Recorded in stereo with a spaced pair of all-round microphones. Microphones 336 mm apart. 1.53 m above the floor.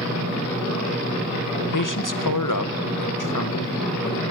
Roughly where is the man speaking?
Left.